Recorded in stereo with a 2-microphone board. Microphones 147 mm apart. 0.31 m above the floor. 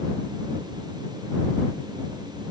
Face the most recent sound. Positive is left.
No sound to turn to.